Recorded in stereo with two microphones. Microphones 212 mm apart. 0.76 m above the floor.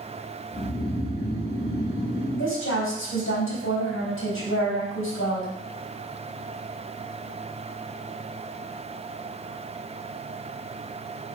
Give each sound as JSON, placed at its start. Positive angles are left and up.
{"t": 0.5, "sound": "snoring", "side_deg": 75, "distance_m": 3.5}
{"t": 2.4, "sound": "a woman speaking", "side_deg": 75, "distance_m": 3.5}